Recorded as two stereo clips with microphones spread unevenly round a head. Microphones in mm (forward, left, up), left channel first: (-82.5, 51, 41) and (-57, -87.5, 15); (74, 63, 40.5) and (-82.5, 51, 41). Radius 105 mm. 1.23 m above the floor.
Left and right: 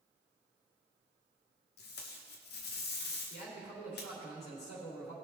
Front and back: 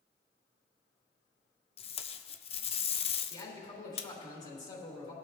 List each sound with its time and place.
1.8 s tape being pulled: 60° left, 0.6 m
3.3 s a man speaking: 50° left, 3 m